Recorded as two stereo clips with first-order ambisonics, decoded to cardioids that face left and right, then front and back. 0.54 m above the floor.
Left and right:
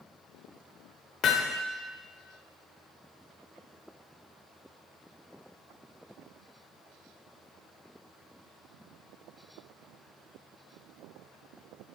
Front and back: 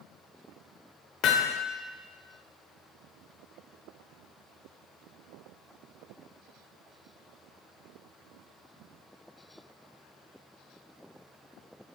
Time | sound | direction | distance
1.2 | hammering | 40° left | 0.9 m